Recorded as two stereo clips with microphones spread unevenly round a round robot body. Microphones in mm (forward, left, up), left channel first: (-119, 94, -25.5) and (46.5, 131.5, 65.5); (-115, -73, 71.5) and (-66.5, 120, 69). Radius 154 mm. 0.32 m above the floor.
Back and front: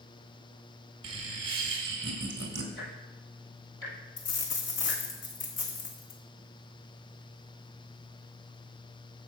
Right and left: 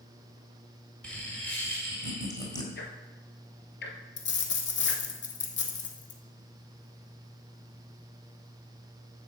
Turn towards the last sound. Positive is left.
turn(degrees=-125)